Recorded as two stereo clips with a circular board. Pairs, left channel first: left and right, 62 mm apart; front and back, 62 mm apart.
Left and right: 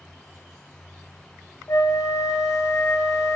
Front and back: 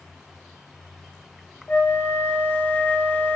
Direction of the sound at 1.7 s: 60° left.